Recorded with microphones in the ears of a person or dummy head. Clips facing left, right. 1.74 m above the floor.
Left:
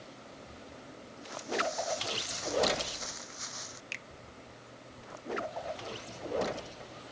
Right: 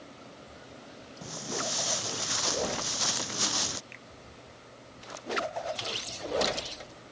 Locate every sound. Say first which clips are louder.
1.2 s footsteps: left 2 dB; 75° right (ahead or behind); by 3.8 s 85° right
3.9 s a finger snap: left 1 dB; 45° left (ahead or behind)